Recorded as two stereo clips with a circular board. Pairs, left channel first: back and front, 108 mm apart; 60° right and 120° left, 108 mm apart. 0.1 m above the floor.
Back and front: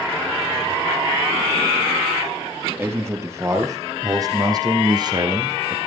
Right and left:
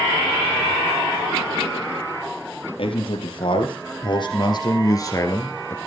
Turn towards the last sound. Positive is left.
turn(degrees=0)